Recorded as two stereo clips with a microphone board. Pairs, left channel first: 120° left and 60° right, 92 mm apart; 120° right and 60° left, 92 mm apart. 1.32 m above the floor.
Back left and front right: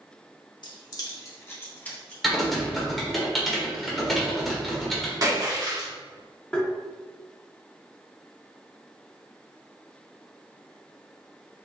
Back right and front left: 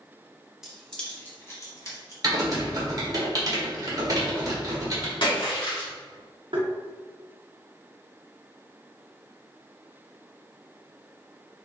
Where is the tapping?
45° left, 1.0 m.